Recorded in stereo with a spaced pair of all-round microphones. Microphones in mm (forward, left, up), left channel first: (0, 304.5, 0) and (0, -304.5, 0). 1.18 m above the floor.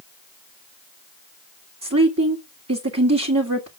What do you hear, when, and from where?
1.8 s a woman speaking: 25° right (ahead or behind), 2 m